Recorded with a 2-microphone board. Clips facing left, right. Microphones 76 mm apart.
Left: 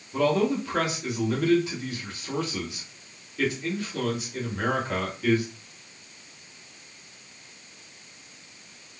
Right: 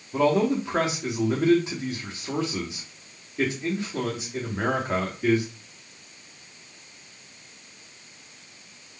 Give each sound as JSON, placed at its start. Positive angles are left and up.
{"t": 0.1, "sound": "a man speaking", "side_deg": -25, "distance_m": 0.9}